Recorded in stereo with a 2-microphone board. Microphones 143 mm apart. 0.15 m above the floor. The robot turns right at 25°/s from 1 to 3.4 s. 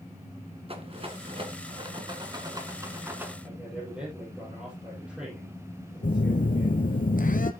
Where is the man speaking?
5° right (ahead or behind), 5.5 m.